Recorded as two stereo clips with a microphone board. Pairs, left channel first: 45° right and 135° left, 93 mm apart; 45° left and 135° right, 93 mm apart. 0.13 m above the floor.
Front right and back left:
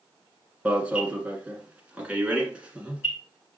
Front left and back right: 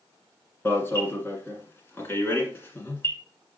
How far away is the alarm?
About 1.3 m.